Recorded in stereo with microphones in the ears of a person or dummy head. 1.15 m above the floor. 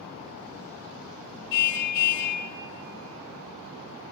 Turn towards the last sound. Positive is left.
turn(degrees=60)  # may be behind; listen again after turning